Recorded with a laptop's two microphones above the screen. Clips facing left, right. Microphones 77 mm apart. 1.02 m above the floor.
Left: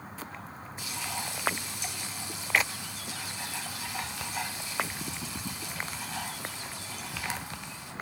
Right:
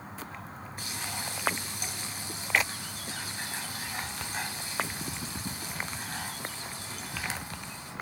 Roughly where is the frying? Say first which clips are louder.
Left 2 dB; right.